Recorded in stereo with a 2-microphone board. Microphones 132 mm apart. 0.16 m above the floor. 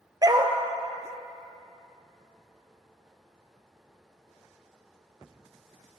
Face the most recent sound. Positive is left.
turn(degrees=-30)  # may be behind; listen again after turning